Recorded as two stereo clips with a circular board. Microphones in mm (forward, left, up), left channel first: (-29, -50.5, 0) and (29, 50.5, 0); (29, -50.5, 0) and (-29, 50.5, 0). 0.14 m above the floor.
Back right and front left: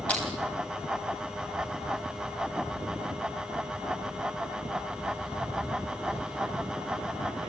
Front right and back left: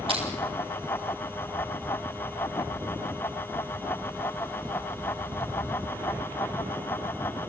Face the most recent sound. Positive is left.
turn(degrees=165)